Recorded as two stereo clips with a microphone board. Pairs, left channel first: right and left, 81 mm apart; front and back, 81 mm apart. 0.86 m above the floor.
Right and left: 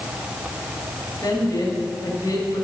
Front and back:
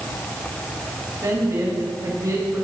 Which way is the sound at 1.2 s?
135° right.